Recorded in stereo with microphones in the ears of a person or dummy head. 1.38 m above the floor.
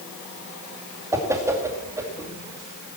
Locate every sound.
1.1 s a whoosh: 15° right (ahead or behind), 2 m